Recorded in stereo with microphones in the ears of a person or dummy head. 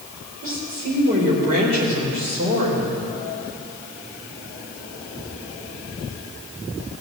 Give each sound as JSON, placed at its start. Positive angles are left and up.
{"t": 0.4, "sound": "a woman speaking", "side_deg": -40, "distance_m": 3.5}